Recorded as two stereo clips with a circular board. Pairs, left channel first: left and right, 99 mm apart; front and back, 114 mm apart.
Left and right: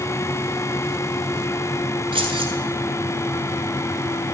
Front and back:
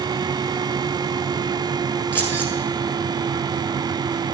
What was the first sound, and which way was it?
Keys jangling, 70° right.